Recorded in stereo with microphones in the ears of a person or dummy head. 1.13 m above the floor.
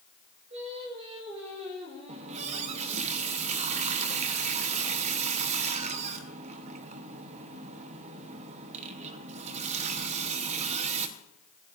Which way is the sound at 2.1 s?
40° right (ahead or behind).